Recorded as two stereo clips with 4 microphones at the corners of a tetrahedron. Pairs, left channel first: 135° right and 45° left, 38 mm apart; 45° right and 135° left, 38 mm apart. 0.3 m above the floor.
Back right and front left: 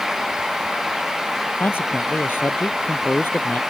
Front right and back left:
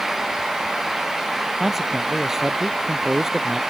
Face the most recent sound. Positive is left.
turn(degrees=-145)